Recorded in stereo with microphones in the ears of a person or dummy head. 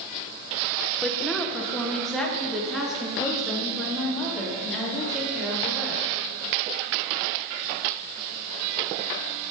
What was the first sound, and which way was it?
A woman speaking, centre (ahead or behind).